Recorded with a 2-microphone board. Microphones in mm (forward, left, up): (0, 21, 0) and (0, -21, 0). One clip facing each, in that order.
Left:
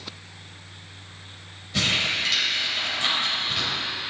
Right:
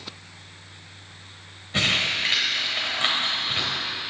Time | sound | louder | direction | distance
1.7 | crumpling | right 1 dB | 35° right (ahead or behind) | 3.5 m